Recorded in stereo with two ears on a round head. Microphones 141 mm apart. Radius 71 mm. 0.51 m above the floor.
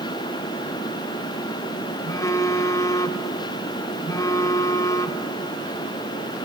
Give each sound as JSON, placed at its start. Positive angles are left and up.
{"t": 2.0, "sound": "a phone buzzing", "side_deg": 20, "distance_m": 0.9}